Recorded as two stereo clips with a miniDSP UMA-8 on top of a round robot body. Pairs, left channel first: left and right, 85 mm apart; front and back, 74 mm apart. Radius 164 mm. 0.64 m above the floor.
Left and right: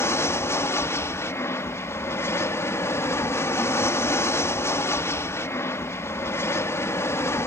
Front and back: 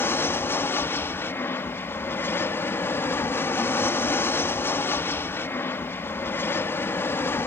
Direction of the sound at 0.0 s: 45° left.